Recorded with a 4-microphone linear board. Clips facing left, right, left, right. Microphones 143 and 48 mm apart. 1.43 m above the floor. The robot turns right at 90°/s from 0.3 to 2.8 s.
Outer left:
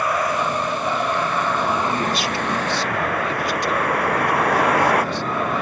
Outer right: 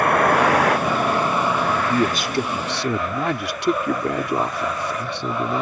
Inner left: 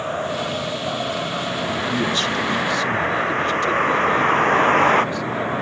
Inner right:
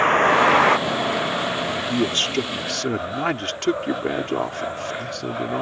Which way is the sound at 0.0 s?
120° right.